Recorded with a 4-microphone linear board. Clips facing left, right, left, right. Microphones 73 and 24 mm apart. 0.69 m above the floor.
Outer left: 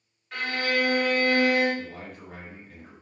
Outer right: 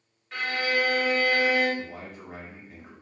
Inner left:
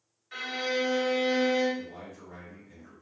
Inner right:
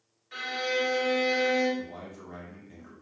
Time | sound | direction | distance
0.3 | a violin | centre (ahead or behind) | 1.9 m
1.8 | a man speaking | 20° right (ahead or behind) | 1.0 m